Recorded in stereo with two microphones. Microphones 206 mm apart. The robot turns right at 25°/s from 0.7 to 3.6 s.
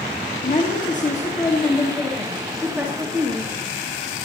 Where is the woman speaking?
135° left, 1.8 m; by 3.5 s 155° right, 1.8 m.